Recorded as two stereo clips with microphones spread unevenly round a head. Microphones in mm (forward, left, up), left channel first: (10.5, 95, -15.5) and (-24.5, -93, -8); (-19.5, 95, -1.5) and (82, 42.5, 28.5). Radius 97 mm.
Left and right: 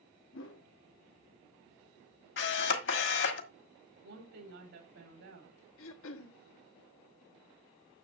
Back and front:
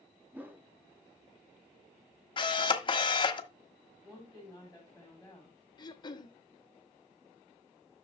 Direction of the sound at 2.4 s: 100° left.